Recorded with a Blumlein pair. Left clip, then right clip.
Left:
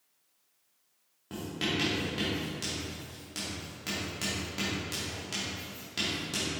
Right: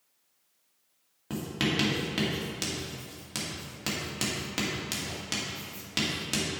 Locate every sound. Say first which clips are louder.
1.3 s writing: right 3 dB; 45° right, 2.0 m